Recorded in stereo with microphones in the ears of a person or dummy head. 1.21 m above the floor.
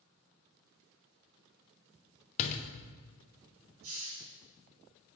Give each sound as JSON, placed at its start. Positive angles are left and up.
{"t": 2.4, "sound": "a door slam", "side_deg": 45, "distance_m": 0.6}
{"t": 3.8, "sound": "a hiss", "side_deg": -80, "distance_m": 2.0}